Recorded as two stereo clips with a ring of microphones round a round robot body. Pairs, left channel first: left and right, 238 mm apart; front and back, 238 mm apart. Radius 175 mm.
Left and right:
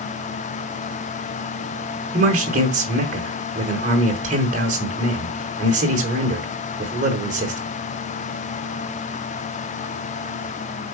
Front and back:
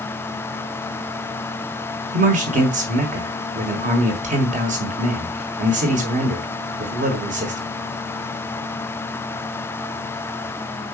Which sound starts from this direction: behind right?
A man speaking, at 2.1 s.